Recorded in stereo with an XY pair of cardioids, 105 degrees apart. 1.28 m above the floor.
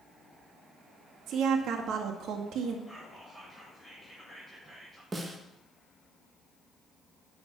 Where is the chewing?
No chewing in this recording.